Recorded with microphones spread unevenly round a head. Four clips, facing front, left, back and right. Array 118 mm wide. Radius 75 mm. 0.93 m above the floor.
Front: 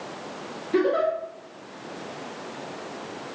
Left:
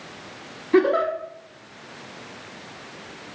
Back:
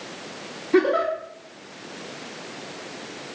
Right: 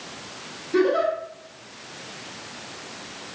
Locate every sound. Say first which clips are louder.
0.7 s a giggle: left 2 dB, back 2 dB; 50° left, 0.9 m